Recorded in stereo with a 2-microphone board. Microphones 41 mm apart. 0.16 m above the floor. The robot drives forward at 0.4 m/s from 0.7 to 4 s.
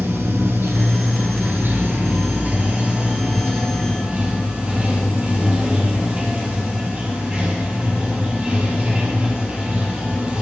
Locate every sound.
0.0 s running water: 60° right (ahead or behind), 0.9 m; by 10.4 s 25° right (ahead or behind), 1.7 m